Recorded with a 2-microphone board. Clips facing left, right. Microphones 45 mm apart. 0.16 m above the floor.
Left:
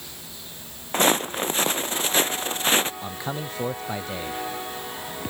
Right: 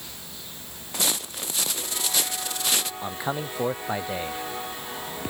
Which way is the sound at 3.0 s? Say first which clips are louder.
Right 2 dB; 15° right (ahead or behind).